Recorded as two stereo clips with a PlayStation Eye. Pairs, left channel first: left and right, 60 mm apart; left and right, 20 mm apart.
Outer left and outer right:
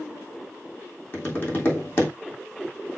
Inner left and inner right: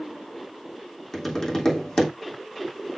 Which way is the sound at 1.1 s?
35° left (ahead or behind).